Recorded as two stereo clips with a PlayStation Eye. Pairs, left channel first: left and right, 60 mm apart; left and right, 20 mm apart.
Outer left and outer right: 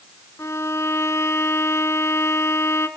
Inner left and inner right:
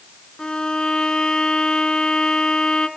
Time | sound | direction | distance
0.4 | a violin | 50° left (ahead or behind) | 1.3 m